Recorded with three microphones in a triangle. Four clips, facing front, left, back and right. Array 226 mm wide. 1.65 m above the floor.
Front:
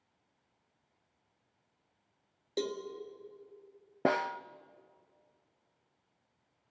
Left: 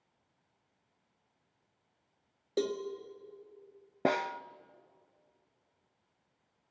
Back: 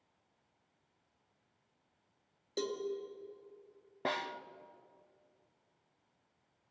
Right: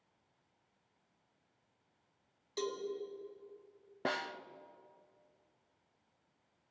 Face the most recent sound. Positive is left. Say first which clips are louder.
# left 8 dB, front 7 dB
turn(degrees=35)